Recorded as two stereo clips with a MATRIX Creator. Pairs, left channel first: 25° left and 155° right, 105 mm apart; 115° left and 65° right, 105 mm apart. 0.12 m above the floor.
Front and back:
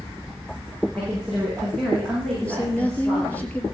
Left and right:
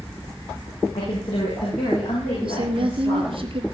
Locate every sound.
0.9 s a woman speaking: 115° left, 8 m
2.4 s a woman speaking: 50° right, 2 m